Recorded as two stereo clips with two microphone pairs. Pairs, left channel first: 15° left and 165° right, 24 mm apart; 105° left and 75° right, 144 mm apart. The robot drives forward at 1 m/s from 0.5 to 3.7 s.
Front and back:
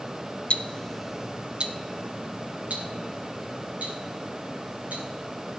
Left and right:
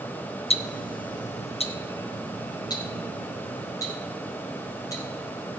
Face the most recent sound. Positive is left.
turn(degrees=170)